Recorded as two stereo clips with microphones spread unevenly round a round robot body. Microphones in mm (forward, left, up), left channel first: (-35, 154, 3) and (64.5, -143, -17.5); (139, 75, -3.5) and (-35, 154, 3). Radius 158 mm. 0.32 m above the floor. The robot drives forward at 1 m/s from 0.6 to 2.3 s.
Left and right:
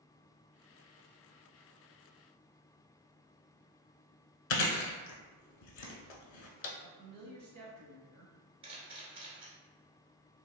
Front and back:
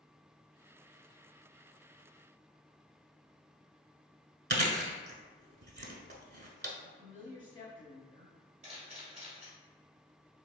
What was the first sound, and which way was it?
Chewing, 115° left.